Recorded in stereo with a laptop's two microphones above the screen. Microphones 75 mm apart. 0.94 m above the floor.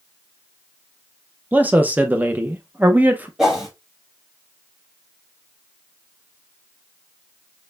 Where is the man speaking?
20° right (ahead or behind), 0.6 m.